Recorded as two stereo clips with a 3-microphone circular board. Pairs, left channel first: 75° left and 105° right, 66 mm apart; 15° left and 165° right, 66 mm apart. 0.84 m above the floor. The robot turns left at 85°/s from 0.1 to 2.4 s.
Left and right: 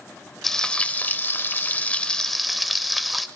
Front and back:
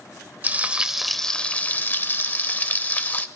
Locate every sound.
0.4 s frying: 155° left, 0.6 m; by 3.3 s 10° right, 0.6 m